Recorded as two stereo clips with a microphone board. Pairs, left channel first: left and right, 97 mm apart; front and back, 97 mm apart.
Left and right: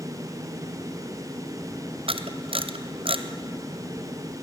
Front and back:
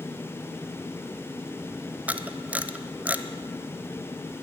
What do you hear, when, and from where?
2.1 s a camera shutter: 105° right, 1.0 m